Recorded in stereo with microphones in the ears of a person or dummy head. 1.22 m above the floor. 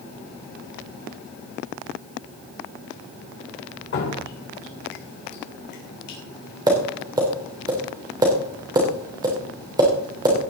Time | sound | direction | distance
3.9 | dripping | 55° left (ahead or behind) | 3 m
6.7 | tapping | 25° right (ahead or behind) | 3 m